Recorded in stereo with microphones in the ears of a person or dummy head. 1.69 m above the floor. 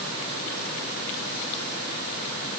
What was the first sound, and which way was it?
Only background noise.